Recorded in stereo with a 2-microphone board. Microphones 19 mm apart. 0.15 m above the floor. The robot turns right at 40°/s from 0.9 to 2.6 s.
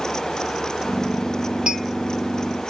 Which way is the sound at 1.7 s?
55° right (ahead or behind).